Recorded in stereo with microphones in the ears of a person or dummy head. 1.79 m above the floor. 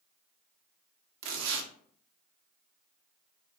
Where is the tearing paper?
65° right (ahead or behind), 0.5 m.